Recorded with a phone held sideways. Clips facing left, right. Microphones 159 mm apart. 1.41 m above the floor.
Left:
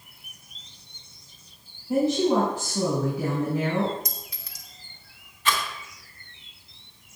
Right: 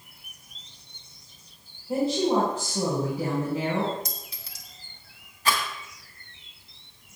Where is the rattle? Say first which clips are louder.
Even; 40° right (ahead or behind), 3 m.